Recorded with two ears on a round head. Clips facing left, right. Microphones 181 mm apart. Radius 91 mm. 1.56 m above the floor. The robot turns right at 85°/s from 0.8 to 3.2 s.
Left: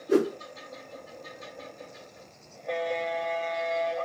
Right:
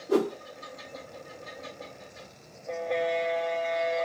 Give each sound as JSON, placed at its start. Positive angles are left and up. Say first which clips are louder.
{"t": 0.1, "sound": "a whoosh", "louder": "left 2 dB", "side_deg": 25, "distance_m": 2.5}